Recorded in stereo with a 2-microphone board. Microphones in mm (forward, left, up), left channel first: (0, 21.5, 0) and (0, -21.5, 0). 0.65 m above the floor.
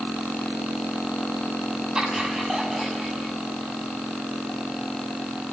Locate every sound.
1.9 s laughter: 15° right (ahead or behind), 4.5 m; by 3.3 s 5° right (ahead or behind), 5 m